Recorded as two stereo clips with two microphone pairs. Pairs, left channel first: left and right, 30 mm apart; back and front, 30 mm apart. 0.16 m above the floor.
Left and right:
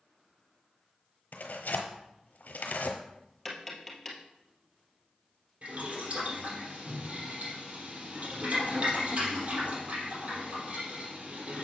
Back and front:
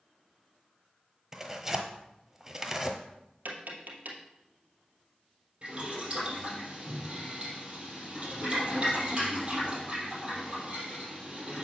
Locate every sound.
1.3 s tearing paper: 75° left, 1.1 m
3.5 s tapping: 5° left, 2 m
5.6 s boiling: 55° right, 4 m